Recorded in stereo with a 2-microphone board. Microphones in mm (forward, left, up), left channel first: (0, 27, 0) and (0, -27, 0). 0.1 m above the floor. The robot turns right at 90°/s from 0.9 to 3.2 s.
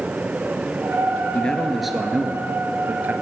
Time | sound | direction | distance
1.3 | a man speaking | 140° left | 1.5 m